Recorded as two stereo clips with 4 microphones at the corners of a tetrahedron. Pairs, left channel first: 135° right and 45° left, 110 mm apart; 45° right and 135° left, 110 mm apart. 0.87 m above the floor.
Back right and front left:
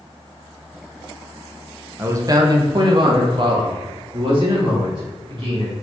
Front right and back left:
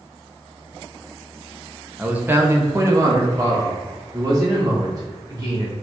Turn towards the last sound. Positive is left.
turn(degrees=80)